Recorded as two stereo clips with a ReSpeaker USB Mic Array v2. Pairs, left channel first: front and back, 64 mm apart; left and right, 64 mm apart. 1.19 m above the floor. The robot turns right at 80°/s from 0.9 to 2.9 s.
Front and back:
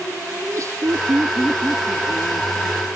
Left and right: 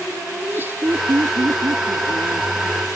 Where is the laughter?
145° right; by 2.9 s 10° left.